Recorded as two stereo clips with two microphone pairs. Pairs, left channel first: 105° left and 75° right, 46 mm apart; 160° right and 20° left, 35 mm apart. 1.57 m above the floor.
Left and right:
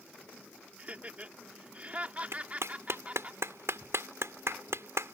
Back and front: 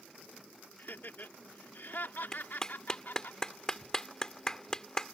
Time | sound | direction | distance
0.8 | laughter | 135° right | ?
2.3 | a clap | 90° right | ?